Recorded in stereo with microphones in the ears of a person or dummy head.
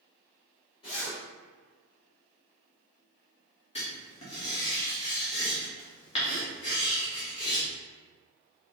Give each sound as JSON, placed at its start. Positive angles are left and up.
{"t": 0.8, "sound": "a zipper", "side_deg": 30, "distance_m": 1.8}
{"t": 3.8, "sound": "writing", "side_deg": 35, "distance_m": 1.2}